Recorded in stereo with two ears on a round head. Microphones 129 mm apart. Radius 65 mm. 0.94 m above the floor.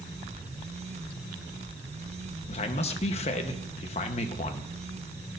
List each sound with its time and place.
2.5 s a man speaking: 45° left (ahead or behind), 0.9 m